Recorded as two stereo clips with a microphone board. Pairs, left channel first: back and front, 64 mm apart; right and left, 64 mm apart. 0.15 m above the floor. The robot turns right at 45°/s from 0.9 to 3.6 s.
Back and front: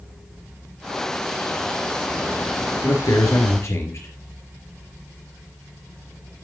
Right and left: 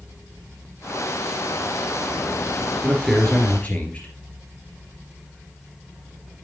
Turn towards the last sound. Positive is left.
turn(degrees=-155)